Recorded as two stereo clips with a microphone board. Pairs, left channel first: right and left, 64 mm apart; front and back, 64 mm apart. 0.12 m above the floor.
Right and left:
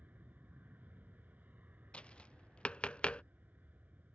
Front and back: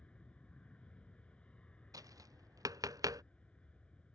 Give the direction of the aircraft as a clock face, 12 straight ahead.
10 o'clock.